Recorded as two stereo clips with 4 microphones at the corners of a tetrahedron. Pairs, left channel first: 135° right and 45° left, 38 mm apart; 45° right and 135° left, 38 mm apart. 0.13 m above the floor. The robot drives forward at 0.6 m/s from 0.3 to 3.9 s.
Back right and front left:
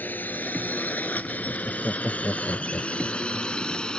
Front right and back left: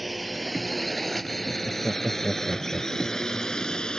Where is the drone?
140° right; by 4.0 s 95° right.